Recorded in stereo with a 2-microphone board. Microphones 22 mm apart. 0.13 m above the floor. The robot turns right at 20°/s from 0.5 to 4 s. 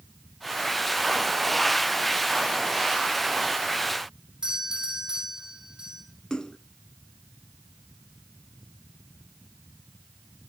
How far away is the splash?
About 0.8 m.